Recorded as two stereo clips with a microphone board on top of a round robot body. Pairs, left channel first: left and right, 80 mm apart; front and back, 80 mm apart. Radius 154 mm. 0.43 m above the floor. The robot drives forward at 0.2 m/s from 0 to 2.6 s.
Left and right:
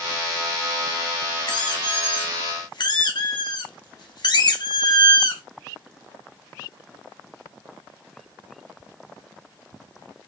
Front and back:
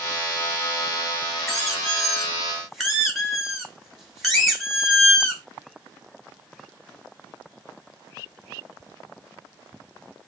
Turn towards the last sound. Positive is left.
turn(degrees=95)